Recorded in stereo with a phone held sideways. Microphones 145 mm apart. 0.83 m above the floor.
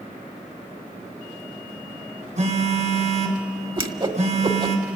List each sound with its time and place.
2.4 s a phone buzzing: 55° right (ahead or behind), 3.5 m
3.8 s a whoosh: 35° right (ahead or behind), 1.3 m